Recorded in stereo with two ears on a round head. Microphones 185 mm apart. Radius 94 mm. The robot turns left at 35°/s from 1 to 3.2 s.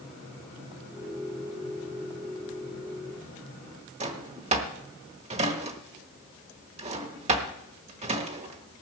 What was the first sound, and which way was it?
A drawer, 30° right (ahead or behind).